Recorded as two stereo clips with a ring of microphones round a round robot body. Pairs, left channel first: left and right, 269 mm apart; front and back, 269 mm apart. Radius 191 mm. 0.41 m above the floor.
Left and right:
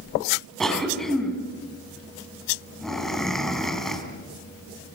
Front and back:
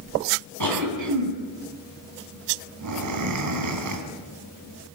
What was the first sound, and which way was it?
A cough, straight behind.